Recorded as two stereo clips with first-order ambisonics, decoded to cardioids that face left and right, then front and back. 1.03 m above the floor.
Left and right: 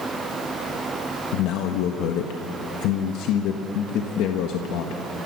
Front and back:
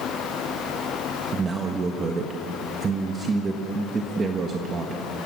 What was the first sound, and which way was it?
A man speaking, 115° left.